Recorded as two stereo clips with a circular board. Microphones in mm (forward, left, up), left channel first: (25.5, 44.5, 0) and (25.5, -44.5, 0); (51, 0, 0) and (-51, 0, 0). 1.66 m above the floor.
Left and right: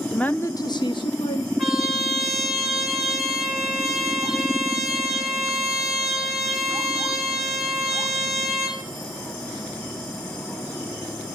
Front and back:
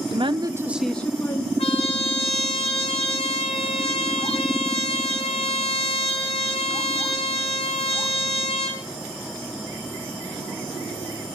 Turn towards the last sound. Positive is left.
turn(degrees=0)